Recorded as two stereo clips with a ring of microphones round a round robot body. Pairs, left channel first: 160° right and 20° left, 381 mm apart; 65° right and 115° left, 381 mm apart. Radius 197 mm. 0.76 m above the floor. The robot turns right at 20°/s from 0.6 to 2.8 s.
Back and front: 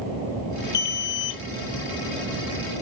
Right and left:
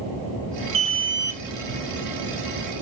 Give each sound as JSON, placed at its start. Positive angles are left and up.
{"t": 0.7, "sound": "an alarm", "azimuth_deg": 180, "distance_m": 0.8}